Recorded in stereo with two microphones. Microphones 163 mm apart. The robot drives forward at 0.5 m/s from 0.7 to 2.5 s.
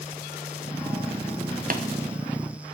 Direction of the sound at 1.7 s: 60° right (ahead or behind).